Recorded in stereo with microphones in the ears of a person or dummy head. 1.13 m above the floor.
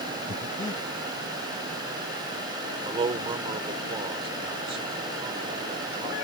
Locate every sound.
0.3 s breathing: 25° left (ahead or behind)
2.9 s a man speaking: 15° right (ahead or behind)